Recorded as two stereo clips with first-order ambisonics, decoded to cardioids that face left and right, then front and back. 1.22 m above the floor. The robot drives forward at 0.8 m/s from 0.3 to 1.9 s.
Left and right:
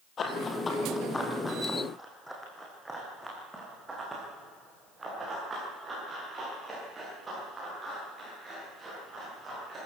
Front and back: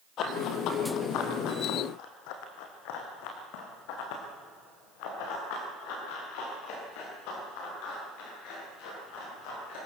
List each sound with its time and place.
0.2 s running footsteps: 35° left, 1.8 m; by 9.9 s 15° right, 12.5 m